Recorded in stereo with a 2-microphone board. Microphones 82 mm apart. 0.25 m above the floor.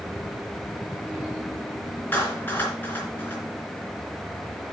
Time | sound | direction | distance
2.1 | a clap | 25° left (ahead or behind) | 3 m